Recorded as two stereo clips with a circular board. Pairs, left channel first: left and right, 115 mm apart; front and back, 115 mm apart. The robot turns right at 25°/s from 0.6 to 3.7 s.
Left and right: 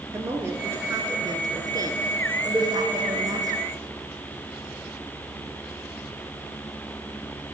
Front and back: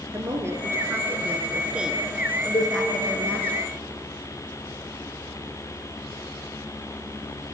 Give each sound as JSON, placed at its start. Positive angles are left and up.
{"t": 0.1, "sound": "a woman speaking", "azimuth_deg": -135, "distance_m": 1.2}
{"t": 2.5, "sound": "a cowbell", "azimuth_deg": -10, "distance_m": 1.9}